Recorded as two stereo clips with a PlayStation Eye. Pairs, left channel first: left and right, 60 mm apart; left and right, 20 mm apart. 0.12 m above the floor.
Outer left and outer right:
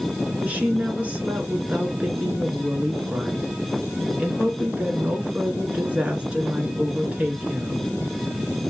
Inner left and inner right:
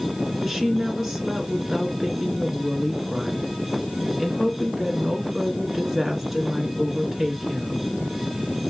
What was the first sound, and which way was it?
A woman speaking, 20° right (ahead or behind).